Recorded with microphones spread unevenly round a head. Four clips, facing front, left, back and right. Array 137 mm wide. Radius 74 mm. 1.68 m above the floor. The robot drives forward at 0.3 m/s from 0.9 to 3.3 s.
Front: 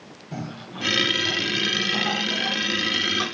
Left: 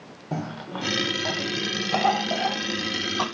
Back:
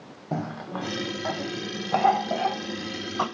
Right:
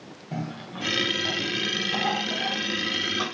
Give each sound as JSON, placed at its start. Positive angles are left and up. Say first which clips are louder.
{"t": 0.3, "sound": "a cough", "louder": "left 3 dB, back 4 dB", "azimuth_deg": 150, "distance_m": 1.6}